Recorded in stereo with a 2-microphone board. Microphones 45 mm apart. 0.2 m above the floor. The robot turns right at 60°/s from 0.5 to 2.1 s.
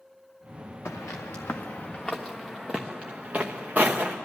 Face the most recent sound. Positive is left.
turn(degrees=-45)  # may be behind; listen again after turning